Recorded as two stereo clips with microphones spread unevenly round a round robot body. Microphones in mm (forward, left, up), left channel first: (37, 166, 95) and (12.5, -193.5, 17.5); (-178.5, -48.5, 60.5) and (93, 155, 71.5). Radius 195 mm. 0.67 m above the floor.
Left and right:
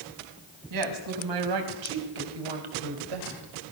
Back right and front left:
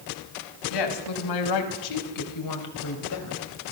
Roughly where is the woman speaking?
Behind right.